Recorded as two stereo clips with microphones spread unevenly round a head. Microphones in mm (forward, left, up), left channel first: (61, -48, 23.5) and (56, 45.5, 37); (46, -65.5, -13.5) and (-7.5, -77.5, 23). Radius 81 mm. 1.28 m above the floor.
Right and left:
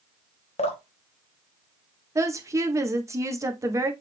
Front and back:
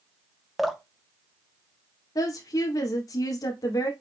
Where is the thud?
No thud in this recording.